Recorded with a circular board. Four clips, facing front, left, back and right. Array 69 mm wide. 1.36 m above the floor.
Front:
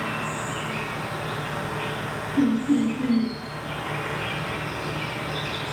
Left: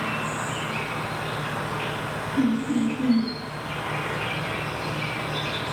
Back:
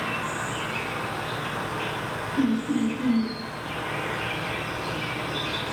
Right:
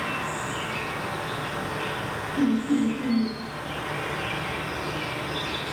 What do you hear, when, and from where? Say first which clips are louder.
0.0 s an insect: left 1 dB, even; 60° left, 1.6 m
2.4 s laughter: even, front 3 dB; 20° left, 1.1 m